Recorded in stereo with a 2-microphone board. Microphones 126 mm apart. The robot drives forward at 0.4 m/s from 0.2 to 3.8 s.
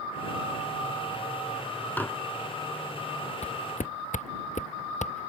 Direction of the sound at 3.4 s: 60° left (ahead or behind).